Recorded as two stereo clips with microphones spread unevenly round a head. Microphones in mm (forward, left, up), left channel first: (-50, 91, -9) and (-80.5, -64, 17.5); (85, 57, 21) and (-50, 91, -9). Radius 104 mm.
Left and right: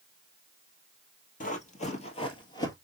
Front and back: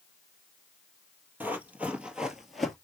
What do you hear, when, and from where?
1.4 s running footsteps: 80° left, 1.7 m; by 2.8 s 25° left, 1.4 m